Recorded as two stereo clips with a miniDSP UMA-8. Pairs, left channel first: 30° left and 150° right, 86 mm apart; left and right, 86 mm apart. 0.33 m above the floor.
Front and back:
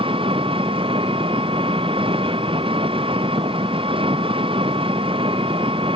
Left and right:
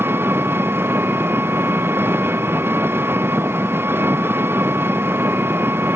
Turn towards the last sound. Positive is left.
turn(degrees=-155)